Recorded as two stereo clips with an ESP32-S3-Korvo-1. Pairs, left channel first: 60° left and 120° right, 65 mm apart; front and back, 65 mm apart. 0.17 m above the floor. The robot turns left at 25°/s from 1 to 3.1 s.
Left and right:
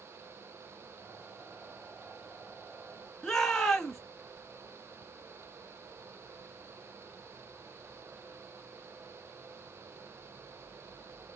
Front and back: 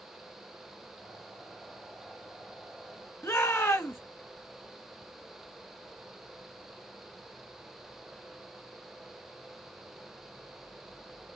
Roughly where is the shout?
Ahead right.